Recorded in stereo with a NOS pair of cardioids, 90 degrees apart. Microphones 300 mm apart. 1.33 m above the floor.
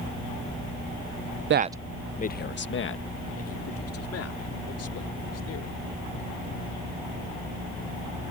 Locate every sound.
1.5 s a man speaking: 40° right; by 5.8 s 55° left